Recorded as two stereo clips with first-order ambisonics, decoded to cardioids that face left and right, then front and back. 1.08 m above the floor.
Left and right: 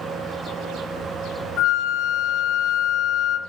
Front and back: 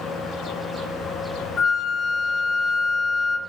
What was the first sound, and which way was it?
A flute, 55° left.